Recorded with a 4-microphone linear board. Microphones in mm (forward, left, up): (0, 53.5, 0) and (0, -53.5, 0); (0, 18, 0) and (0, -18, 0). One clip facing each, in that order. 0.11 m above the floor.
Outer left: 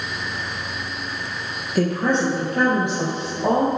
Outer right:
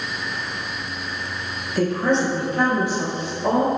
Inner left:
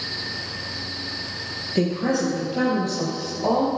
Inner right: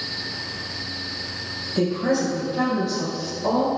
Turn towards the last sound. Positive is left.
turn(degrees=70)  # may be behind; listen again after turning